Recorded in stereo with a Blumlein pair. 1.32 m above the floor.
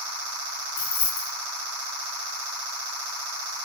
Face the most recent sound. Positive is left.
turn(degrees=60)